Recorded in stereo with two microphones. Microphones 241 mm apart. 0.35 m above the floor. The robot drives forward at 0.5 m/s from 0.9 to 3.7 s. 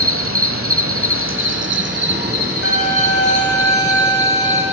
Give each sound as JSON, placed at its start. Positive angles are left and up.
{"t": 0.0, "sound": "an insect", "side_deg": -65, "distance_m": 1.0}
{"t": 2.6, "sound": "a violin", "side_deg": 80, "distance_m": 3.0}